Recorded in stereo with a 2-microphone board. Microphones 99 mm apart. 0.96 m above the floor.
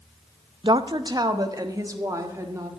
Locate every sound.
0.6 s a woman speaking: 55° right (ahead or behind), 0.5 m; by 2.7 s 30° right (ahead or behind), 1.9 m